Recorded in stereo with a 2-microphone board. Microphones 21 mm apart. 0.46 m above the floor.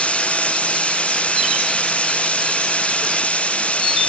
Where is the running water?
70° left (ahead or behind).